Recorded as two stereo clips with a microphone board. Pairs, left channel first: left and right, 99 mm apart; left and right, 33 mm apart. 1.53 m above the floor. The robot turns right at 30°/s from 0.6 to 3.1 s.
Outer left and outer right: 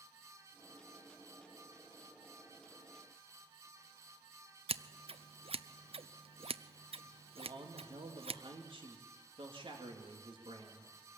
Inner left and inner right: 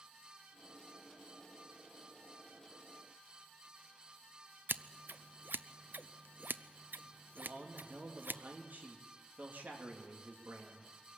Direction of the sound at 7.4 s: 60° right (ahead or behind).